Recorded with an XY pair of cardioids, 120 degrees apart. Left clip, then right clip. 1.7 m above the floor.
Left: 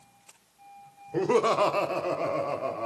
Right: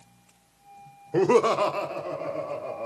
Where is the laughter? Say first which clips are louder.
Right 3 dB; 35° right, 0.7 m; by 2.9 s 65° left, 1.6 m.